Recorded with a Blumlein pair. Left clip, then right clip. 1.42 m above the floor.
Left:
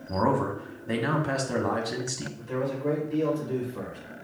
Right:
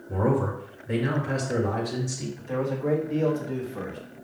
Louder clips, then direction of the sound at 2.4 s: Right 2 dB; 15° right.